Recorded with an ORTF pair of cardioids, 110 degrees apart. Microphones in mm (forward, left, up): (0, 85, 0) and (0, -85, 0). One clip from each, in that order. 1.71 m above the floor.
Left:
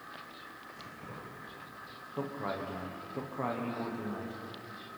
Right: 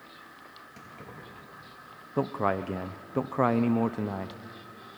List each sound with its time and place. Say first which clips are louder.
0.8 s keys jangling: right 2 dB; 65° right, 9 m
2.2 s a man speaking: right 9 dB; 60° right, 0.8 m